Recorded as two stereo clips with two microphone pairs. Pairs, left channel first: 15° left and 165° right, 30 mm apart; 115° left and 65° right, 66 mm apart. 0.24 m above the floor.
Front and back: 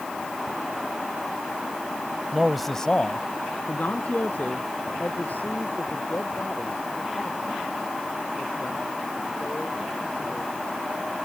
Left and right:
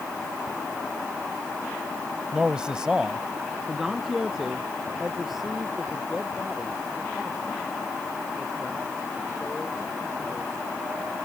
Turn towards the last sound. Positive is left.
turn(degrees=20)